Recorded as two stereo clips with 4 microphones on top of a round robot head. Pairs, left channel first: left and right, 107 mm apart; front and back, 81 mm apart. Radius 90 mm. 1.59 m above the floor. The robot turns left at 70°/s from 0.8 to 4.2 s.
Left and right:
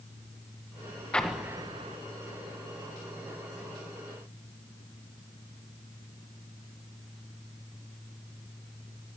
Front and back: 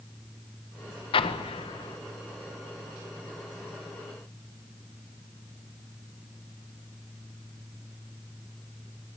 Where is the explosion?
10° left, 1.6 m; by 2.0 s 50° right, 1.6 m.